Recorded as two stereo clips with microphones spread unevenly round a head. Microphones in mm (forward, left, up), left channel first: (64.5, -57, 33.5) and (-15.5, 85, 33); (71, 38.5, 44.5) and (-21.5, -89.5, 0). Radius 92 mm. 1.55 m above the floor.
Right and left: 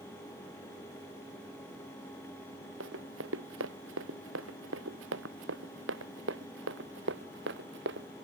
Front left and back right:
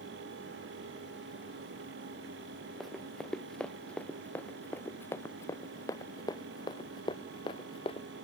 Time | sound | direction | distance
2.8 | running footsteps | 140° left | ?